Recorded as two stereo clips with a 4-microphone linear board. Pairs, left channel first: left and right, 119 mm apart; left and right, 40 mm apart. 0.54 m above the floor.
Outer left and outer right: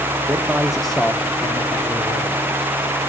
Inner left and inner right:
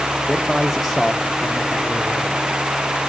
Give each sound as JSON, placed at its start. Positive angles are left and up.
{"t": 0.3, "sound": "a man speaking", "side_deg": -25, "distance_m": 1.0}